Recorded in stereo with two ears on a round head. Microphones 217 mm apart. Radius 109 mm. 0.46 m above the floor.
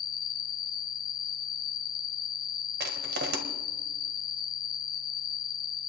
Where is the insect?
20° left (ahead or behind), 1.1 m.